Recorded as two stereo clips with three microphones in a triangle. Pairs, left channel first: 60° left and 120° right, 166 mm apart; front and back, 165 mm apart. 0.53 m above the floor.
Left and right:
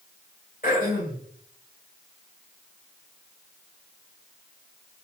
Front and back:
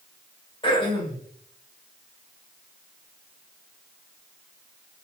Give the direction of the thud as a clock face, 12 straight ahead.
I don't hear a thud.